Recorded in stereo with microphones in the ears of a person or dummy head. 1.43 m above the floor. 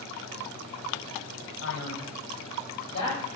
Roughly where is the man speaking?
Left.